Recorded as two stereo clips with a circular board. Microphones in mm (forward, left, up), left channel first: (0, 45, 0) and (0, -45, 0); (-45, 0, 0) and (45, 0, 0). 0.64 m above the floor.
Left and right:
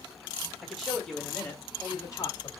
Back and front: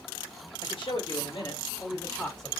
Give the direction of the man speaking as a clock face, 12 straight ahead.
6 o'clock.